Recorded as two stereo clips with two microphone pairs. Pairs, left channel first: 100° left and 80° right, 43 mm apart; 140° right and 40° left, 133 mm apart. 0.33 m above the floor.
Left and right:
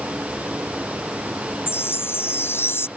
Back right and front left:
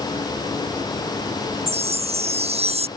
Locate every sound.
1.7 s a chime: 80° left